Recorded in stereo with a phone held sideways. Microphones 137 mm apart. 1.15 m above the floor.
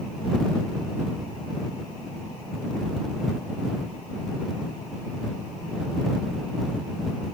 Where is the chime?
I don't hear a chime.